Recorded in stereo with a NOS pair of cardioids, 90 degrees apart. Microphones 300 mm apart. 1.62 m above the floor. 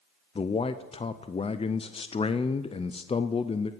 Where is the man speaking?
20° left, 0.6 m.